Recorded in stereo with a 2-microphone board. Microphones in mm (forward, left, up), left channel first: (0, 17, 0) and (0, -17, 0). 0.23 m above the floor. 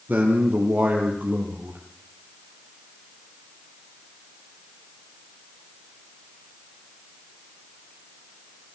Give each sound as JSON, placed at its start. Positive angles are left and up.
{"t": 0.1, "sound": "a man speaking", "side_deg": -60, "distance_m": 5.5}